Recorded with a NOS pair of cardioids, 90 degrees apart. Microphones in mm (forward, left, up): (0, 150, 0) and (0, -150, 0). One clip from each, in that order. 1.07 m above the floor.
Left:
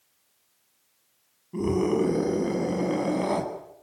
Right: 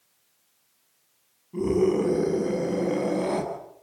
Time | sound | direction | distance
1.5 | a scream | 30° left | 9 m